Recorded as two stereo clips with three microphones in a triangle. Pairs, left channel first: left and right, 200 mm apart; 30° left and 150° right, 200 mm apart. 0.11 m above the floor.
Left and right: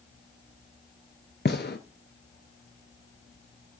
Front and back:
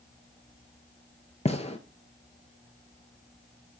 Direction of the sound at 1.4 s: 80° left.